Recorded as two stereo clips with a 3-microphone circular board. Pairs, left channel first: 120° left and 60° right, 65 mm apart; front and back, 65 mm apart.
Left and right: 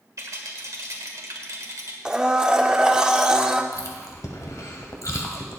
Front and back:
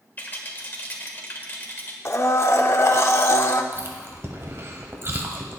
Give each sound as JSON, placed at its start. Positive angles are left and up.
{"t": 0.2, "sound": "a rattle", "azimuth_deg": -50, "distance_m": 1.8}
{"t": 2.0, "sound": "a blender", "azimuth_deg": 15, "distance_m": 0.7}
{"t": 3.7, "sound": "chewing", "azimuth_deg": 140, "distance_m": 1.5}